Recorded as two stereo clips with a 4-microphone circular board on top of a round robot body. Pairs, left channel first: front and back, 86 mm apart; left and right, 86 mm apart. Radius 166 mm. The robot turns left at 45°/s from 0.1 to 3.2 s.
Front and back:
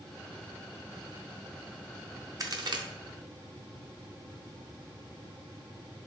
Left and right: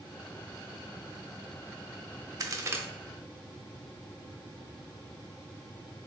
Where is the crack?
135° right, 0.6 m; by 2.8 s 150° right, 0.6 m.